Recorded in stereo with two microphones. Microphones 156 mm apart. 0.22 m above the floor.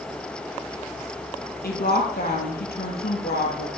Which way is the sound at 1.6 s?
75° left (ahead or behind).